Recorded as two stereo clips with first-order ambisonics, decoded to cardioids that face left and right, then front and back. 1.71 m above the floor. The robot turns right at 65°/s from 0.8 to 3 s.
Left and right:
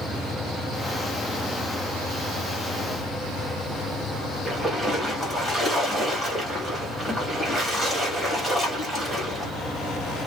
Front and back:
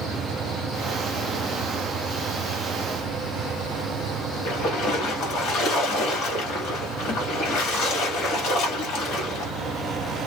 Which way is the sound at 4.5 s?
15° right.